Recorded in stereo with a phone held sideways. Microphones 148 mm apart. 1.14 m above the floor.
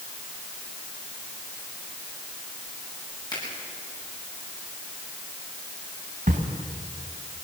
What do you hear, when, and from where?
3.3 s a finger snap: 25° left (ahead or behind), 9.5 m
6.3 s a camera shutter: 65° right (ahead or behind), 2.5 m